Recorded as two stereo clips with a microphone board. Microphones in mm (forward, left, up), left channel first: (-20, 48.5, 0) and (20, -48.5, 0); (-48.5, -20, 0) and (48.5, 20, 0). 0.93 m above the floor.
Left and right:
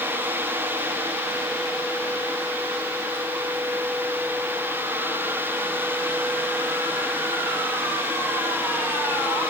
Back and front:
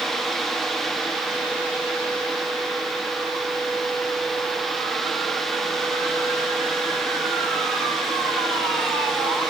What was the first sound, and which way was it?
Only background noise.